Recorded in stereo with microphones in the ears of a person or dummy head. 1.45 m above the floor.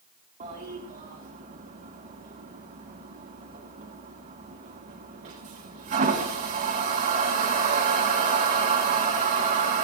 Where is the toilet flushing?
35° right (ahead or behind), 1.6 m.